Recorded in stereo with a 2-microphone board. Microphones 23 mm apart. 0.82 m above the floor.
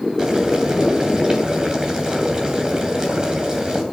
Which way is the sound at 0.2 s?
35° right (ahead or behind).